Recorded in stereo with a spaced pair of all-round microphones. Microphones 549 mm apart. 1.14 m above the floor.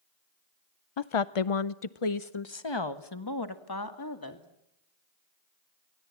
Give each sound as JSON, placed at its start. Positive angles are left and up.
{"t": 1.0, "sound": "a woman speaking", "side_deg": 50, "distance_m": 0.6}